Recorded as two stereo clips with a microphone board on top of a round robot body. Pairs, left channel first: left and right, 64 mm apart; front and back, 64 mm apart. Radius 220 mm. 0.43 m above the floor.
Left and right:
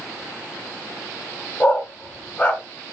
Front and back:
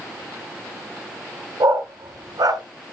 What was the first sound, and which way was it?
A dog barking, 165° left.